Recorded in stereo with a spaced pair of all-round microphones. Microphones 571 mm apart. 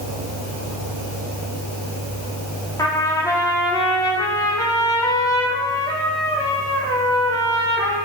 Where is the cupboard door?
I don't hear a cupboard door.